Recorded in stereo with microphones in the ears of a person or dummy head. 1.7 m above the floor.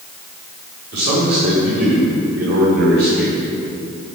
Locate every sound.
0.9 s a man speaking: 60° right (ahead or behind), 6 m